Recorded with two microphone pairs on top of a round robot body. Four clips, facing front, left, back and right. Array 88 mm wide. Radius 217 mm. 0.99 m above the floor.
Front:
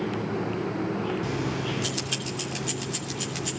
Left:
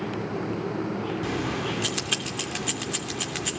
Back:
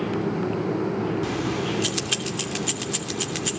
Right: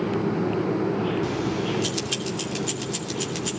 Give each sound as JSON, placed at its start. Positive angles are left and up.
{"t": 1.2, "sound": "keys jangling", "azimuth_deg": 125, "distance_m": 3.0}